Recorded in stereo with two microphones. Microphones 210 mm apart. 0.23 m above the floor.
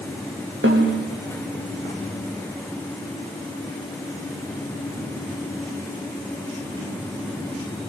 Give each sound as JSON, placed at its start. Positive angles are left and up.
{"t": 0.6, "sound": "a snare drum", "side_deg": -70, "distance_m": 6.0}